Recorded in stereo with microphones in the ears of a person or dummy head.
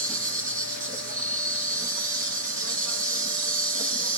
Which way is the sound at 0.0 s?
45° right (ahead or behind).